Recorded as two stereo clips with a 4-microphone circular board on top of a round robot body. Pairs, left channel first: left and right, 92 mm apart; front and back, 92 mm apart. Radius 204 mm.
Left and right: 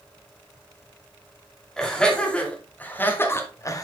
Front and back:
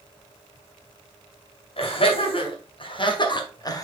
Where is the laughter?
5° left, 3 m; by 3.9 s 45° left, 1.7 m.